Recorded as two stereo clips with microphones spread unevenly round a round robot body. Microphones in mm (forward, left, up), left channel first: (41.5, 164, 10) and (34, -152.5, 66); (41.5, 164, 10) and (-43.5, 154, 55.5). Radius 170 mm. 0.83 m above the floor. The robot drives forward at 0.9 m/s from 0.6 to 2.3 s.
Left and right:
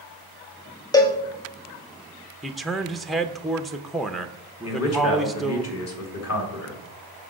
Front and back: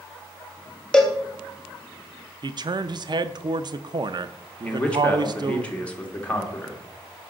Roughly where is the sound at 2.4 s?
Behind left.